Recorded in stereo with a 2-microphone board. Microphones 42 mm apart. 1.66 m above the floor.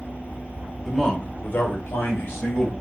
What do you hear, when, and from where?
0.8 s a man speaking: centre (ahead or behind), 1.0 m; by 2.7 s 80° left, 1.7 m